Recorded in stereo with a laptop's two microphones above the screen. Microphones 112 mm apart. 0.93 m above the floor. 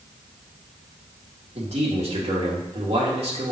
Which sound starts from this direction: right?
A man speaking, at 1.6 s.